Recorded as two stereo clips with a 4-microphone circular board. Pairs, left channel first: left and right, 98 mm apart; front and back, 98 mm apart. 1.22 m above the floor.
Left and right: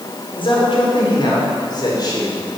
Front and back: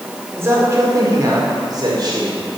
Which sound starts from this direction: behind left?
A man speaking, at 0.4 s.